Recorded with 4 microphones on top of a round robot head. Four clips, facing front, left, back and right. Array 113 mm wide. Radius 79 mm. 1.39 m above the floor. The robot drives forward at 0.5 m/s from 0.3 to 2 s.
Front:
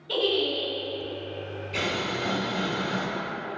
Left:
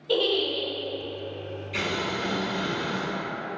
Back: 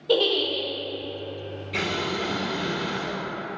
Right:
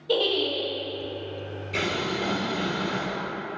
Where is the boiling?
140° right, 1.2 m; by 3.0 s 145° right, 1.3 m.